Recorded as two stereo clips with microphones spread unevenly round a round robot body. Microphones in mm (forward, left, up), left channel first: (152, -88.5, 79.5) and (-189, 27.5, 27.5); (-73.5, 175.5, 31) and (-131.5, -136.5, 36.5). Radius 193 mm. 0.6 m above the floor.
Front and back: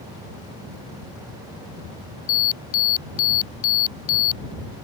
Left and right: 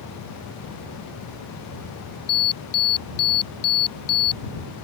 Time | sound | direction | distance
2.3 | an alarm | 15° left | ?